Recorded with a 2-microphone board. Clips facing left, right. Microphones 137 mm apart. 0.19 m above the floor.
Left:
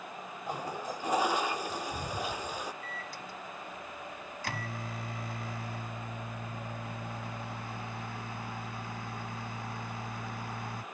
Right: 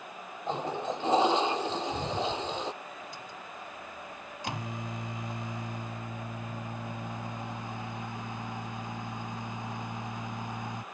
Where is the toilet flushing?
25° right (ahead or behind).